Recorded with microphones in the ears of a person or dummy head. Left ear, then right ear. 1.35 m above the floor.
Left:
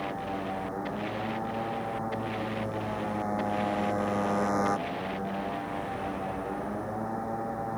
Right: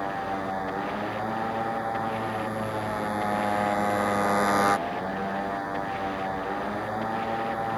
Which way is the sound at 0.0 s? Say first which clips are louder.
Right 4 dB; 90° right.